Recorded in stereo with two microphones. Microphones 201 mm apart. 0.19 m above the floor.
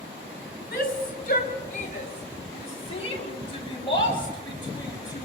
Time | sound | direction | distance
0.7 | a shout | 50° left (ahead or behind) | 3.5 m